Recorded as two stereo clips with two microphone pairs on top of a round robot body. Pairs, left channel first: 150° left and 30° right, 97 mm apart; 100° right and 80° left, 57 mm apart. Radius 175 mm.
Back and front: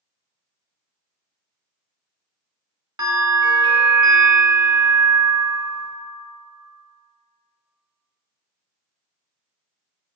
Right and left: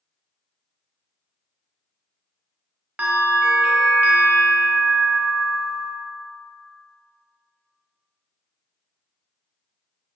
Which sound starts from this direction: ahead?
A bell, at 3.0 s.